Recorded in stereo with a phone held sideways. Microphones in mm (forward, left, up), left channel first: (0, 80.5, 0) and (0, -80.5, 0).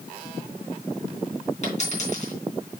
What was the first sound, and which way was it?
A dropped coin, 50° left (ahead or behind).